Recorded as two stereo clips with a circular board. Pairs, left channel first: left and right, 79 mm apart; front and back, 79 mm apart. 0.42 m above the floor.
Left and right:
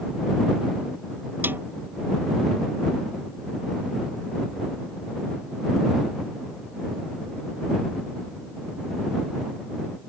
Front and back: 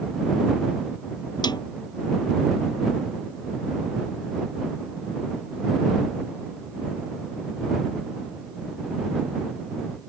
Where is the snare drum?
25° right.